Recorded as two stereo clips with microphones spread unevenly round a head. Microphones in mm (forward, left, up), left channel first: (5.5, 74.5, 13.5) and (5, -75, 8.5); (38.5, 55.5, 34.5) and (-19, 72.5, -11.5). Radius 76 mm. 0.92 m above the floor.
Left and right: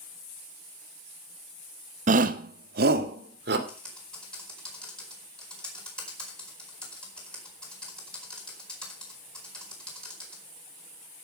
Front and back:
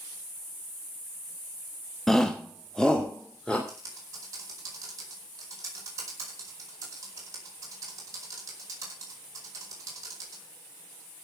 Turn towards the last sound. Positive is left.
turn(degrees=175)